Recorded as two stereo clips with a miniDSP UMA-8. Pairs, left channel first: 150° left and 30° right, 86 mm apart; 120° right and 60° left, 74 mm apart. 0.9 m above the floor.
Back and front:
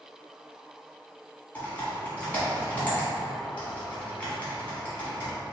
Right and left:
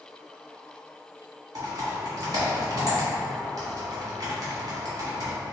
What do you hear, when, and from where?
1.6 s typing on a keyboard: 80° left, 1.6 m